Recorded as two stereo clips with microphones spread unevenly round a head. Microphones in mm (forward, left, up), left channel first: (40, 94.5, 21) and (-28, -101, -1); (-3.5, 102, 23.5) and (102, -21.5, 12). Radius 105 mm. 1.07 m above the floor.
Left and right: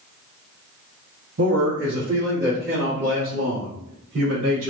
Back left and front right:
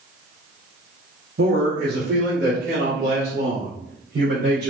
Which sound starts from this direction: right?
A man speaking, at 1.4 s.